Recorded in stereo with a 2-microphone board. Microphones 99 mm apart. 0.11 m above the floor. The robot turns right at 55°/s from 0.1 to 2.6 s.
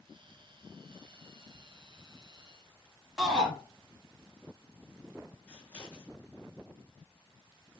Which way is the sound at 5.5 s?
15° left (ahead or behind).